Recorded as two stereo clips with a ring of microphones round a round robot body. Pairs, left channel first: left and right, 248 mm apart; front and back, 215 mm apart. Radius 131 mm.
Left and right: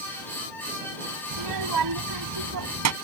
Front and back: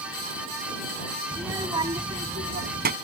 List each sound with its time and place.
1.3 s a child speaking: 95° right; by 2.9 s 120° right